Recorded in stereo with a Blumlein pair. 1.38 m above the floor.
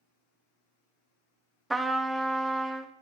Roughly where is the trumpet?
Ahead.